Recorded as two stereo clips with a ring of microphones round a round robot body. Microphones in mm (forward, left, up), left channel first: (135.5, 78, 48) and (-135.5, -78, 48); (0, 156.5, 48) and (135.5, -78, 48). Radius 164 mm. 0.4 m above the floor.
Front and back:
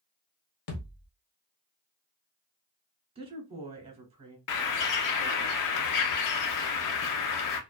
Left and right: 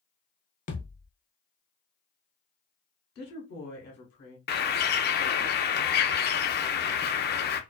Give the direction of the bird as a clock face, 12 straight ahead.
10 o'clock.